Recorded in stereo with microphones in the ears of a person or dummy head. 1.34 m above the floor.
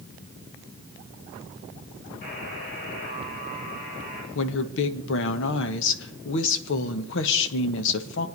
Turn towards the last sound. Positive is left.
turn(degrees=70)  # may be behind; listen again after turning